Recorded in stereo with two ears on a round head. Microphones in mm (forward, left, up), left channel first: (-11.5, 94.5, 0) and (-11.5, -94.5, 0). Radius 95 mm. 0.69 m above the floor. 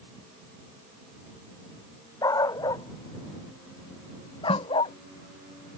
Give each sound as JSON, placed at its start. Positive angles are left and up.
{"t": 2.2, "sound": "a dog barking", "side_deg": 15}
{"t": 4.5, "sound": "a snare drum", "side_deg": 25}